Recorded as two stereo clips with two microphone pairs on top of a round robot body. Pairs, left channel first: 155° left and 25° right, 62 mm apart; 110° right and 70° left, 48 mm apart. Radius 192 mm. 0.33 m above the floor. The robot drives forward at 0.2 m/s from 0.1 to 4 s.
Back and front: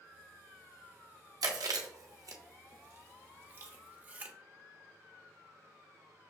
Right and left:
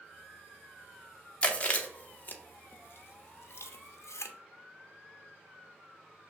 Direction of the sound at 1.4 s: 45° right.